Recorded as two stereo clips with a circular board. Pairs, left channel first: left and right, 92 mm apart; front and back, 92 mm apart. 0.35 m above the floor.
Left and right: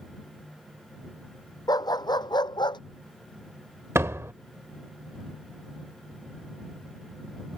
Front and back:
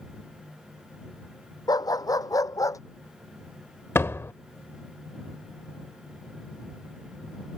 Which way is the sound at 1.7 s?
45° left.